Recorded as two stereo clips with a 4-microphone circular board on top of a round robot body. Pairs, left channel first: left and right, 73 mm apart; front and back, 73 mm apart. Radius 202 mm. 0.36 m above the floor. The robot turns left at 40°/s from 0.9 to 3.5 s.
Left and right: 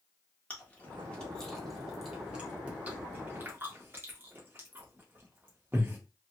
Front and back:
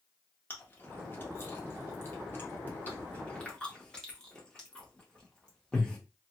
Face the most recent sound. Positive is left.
turn(degrees=-70)